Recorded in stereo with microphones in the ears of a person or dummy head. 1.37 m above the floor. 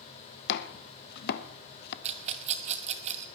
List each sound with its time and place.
0.5 s chopping: 60° left (ahead or behind), 0.9 m
2.0 s a rattle: 35° right (ahead or behind), 1.0 m